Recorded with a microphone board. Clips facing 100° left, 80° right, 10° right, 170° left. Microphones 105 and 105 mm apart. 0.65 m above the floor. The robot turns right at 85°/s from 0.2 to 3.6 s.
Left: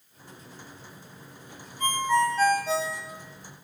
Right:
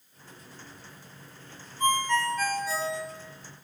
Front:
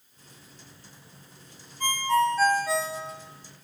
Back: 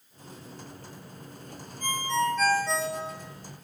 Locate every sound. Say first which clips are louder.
1.8 s a ringtone: left 2 dB, front 4 dB; 5° right, 1.5 m; by 3.0 s 100° left, 1.5 m